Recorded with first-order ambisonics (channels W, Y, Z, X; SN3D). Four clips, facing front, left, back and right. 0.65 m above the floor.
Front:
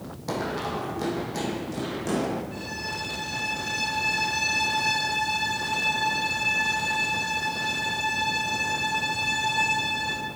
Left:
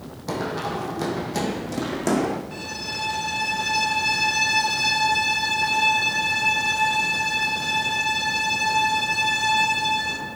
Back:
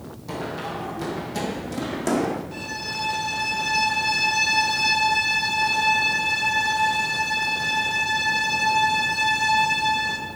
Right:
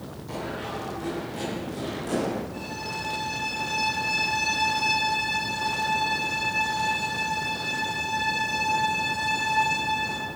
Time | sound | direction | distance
0.3 | running footsteps | 60° left | 1.4 m
2.5 | a violin | 110° left | 2.5 m